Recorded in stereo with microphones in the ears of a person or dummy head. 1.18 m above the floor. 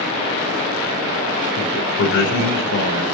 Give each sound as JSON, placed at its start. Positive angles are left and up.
{"t": 1.6, "sound": "a man speaking", "side_deg": 65, "distance_m": 4.0}